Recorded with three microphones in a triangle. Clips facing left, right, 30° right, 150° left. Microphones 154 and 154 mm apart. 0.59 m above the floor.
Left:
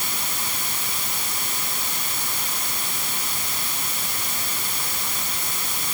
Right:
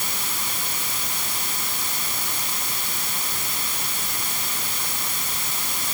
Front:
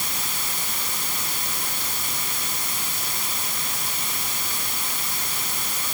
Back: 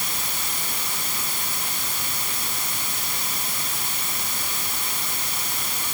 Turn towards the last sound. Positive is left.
No sound to turn to.